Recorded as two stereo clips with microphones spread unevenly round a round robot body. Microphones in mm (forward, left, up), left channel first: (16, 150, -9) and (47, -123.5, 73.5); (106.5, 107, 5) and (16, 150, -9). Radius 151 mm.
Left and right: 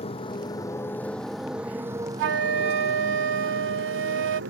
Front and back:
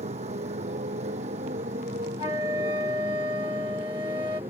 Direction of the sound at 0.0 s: 170° left.